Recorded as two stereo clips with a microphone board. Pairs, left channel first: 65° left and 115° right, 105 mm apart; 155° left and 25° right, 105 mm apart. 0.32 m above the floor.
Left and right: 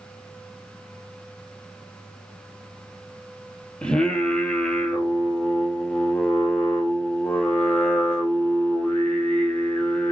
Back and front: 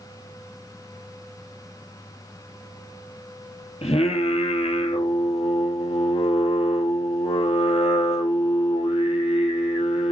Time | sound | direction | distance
3.8 | singing | 150° left | 1.7 m